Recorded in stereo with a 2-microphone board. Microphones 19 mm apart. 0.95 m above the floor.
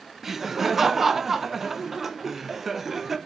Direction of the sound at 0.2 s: 15° right (ahead or behind).